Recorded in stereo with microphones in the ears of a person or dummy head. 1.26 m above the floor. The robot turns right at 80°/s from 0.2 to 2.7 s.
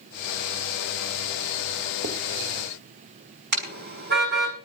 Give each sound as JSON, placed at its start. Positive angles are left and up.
{"t": 2.0, "sound": "writing", "side_deg": -65, "distance_m": 2.5}
{"t": 3.5, "sound": "a car horn", "side_deg": -55, "distance_m": 5.5}